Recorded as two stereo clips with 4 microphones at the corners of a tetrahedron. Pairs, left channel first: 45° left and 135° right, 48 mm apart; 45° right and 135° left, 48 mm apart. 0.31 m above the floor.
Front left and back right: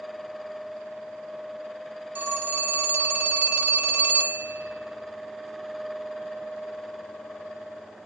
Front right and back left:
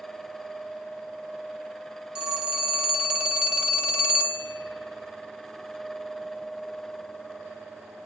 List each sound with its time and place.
2.1 s a phone ringing: 160° right, 1.1 m